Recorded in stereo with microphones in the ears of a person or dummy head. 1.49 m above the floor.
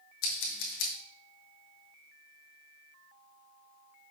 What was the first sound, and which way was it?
Scissors, 65° left (ahead or behind).